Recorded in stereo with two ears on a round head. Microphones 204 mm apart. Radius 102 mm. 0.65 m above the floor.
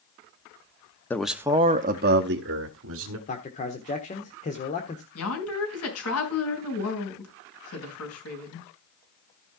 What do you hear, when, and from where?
1.1 s a man speaking: 10° left (ahead or behind), 0.8 m; by 3.2 s 70° right (ahead or behind), 1.7 m
3.3 s a man speaking: 30° left (ahead or behind), 1.4 m
5.2 s a woman speaking: 70° left (ahead or behind), 5 m